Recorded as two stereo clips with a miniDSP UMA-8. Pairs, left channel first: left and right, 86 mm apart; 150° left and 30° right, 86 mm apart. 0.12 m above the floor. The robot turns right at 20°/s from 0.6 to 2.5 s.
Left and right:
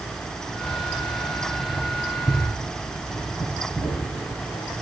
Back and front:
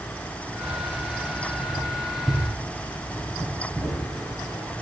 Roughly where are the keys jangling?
Ahead left.